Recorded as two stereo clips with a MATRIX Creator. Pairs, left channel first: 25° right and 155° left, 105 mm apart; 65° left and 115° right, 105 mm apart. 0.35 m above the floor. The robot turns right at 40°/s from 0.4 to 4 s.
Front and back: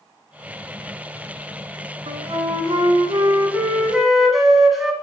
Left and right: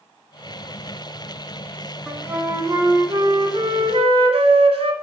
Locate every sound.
2.1 s a flute: 165° left, 1.1 m; by 4.9 s 115° right, 1.1 m